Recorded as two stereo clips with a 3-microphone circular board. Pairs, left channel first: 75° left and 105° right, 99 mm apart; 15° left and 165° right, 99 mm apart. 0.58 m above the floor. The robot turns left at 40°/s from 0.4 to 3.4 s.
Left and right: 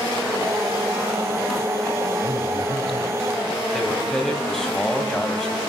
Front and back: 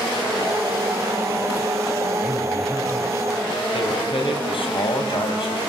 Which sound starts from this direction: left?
A man speaking, at 2.2 s.